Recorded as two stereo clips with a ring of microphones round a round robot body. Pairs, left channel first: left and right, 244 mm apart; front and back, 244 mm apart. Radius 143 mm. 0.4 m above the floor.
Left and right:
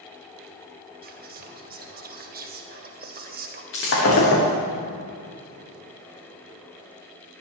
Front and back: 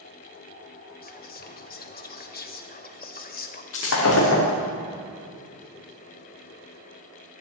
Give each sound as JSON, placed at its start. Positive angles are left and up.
{"t": 1.0, "sound": "whispering", "azimuth_deg": -45, "distance_m": 1.9}
{"t": 3.7, "sound": "breaking glass", "azimuth_deg": 45, "distance_m": 4.5}